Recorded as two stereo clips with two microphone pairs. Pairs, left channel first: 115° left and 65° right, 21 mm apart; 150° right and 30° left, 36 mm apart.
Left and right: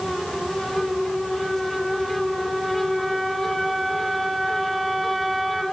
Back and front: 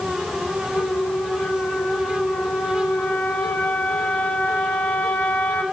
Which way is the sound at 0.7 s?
160° right.